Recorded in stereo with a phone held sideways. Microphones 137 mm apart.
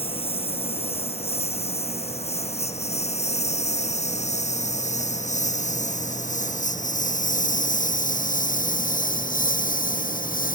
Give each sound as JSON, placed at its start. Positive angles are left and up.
{"t": 0.0, "sound": "a lawn mower", "side_deg": 45}